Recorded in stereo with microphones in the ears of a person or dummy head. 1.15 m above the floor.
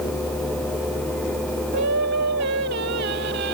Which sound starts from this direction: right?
Singing, at 1.7 s.